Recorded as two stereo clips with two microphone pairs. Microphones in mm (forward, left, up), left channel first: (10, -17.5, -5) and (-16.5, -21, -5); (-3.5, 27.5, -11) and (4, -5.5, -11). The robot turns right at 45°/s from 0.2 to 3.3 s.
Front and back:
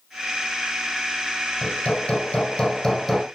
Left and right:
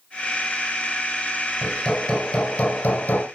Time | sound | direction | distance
1.6 | hammering | 15° left | 6 m